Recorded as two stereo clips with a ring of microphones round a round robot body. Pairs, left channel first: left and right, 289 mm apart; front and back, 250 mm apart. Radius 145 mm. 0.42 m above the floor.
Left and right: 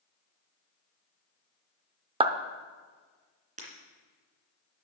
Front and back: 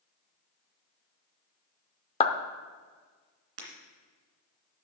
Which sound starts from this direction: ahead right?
A clap, at 2.2 s.